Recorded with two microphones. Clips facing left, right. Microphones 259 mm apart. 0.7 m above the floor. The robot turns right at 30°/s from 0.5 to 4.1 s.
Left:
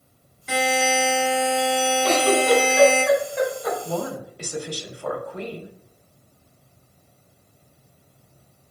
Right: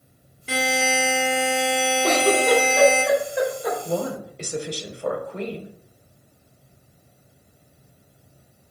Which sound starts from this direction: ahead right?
A buzzer, at 0.5 s.